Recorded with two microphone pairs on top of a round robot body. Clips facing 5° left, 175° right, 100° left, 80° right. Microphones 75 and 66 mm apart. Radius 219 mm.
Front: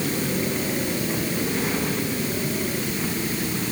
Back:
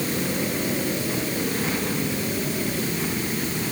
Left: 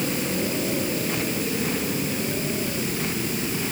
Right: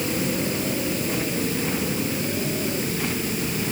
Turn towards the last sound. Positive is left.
No sound to turn to.